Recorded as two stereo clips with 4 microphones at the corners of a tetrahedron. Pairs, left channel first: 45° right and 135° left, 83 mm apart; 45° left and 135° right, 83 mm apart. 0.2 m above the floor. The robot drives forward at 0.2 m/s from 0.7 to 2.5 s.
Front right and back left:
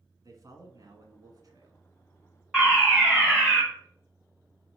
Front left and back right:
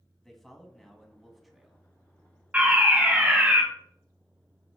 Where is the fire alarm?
155° right, 1.9 m.